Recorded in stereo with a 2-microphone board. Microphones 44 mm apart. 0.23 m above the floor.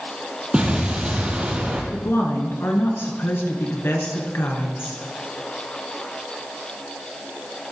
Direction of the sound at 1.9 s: 65° left (ahead or behind).